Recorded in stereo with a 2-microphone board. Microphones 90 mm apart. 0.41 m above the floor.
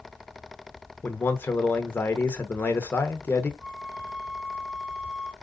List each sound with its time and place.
1.0 s a man speaking: 20° left (ahead or behind), 0.8 m
3.6 s a flute: 5° right (ahead or behind), 3.5 m